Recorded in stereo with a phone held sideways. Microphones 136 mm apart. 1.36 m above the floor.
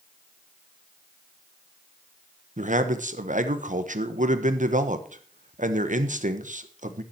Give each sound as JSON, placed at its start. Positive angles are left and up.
{"t": 2.6, "sound": "a man speaking", "side_deg": -75, "distance_m": 1.3}